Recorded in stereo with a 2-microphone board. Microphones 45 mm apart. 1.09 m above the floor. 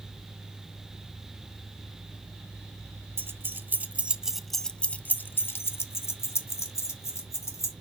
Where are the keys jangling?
50° right (ahead or behind), 0.9 m; by 7.7 s 75° left (ahead or behind), 1.8 m.